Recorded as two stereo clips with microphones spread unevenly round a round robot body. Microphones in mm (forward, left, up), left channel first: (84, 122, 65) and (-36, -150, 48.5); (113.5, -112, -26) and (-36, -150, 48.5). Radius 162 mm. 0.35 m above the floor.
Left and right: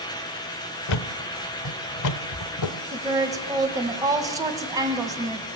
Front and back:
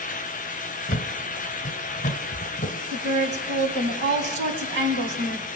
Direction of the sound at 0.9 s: 50° left.